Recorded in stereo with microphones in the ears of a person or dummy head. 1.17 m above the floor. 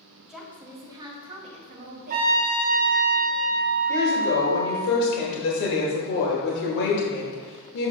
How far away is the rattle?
No rattle in this recording.